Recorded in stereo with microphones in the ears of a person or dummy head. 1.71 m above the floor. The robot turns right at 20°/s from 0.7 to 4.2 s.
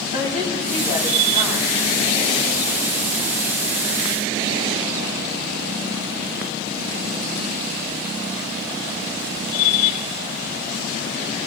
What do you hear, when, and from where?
0.1 s a woman speaking: 40° left (ahead or behind), 9.5 m; by 1.9 s 20° left (ahead or behind), 9.5 m